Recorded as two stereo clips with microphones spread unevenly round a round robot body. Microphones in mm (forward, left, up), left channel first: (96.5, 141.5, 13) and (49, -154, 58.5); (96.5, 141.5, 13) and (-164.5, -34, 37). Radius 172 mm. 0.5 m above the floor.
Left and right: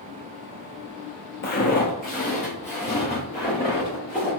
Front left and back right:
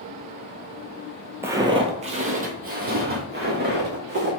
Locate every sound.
1.4 s footsteps: 140° left, 0.6 m; by 4.3 s 160° left, 2.0 m